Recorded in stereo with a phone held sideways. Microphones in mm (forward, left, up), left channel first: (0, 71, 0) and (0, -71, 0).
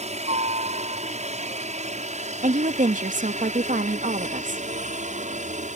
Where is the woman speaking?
65° right (ahead or behind).